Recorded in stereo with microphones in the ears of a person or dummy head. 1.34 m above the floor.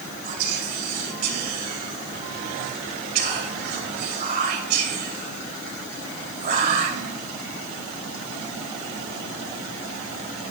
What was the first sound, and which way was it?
Whispering, 55° right (ahead or behind).